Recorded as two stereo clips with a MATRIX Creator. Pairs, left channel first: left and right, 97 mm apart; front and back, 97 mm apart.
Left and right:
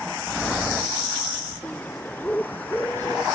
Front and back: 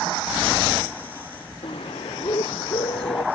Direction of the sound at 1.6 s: 20° left.